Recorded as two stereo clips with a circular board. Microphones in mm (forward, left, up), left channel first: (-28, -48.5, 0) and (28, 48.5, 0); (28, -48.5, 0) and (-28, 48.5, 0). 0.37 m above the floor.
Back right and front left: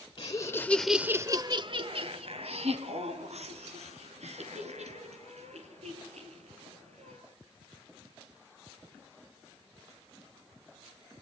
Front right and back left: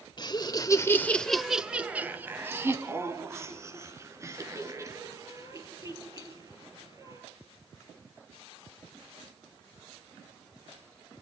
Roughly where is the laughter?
Right.